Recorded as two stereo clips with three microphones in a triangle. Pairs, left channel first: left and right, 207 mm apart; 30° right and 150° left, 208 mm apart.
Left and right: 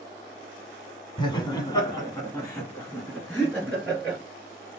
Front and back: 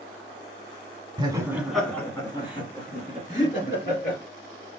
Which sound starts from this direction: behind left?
Laughter, at 1.2 s.